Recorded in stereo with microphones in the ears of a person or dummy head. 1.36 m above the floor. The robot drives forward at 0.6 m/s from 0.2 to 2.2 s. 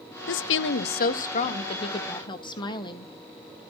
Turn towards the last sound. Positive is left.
turn(degrees=25)  # may be behind; listen again after turning